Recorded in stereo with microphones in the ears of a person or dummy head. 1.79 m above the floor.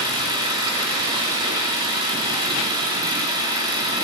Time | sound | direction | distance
0.0 | an engine running | 25° right (ahead or behind) | 4.5 m